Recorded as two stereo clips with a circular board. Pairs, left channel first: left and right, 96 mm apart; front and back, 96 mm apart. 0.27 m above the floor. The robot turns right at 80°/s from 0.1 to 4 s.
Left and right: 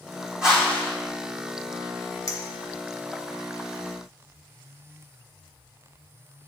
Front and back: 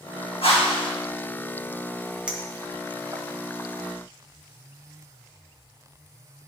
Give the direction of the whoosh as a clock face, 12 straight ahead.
12 o'clock.